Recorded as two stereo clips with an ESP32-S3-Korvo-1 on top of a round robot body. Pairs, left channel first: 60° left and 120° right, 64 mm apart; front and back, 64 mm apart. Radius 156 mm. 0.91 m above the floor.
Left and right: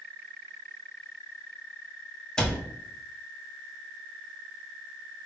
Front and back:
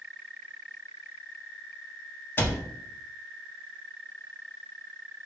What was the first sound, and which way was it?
A cupboard door, 5° right.